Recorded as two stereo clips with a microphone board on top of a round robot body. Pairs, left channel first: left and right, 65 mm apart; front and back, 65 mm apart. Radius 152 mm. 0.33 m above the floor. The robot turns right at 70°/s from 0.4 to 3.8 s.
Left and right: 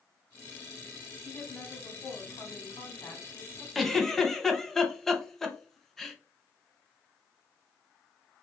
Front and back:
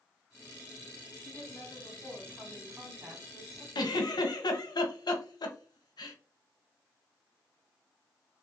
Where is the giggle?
Straight ahead, 0.9 m; by 6.2 s 5° left, 0.9 m.